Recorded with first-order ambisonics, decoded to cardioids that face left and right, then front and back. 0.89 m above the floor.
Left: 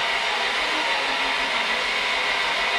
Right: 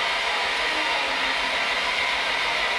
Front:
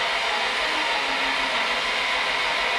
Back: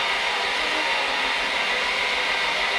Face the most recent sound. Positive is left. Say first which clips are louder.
# left 1 dB, even
turn(degrees=70)